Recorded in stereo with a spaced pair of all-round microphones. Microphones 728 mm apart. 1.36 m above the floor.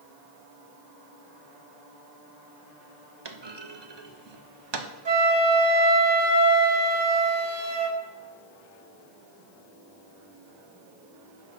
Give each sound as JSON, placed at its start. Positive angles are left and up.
{"t": 3.2, "sound": "a clunk", "side_deg": -35, "distance_m": 0.8}
{"t": 5.0, "sound": "a flute", "side_deg": -35, "distance_m": 2.0}